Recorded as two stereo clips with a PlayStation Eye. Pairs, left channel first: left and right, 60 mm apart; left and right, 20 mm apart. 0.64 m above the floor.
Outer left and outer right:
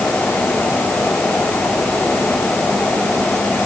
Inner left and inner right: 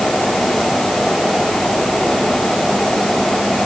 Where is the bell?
No bell in this recording.